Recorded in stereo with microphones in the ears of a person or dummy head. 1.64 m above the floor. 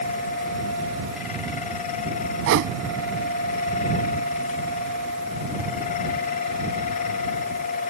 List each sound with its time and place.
2.5 s a whoosh: 70° right (ahead or behind)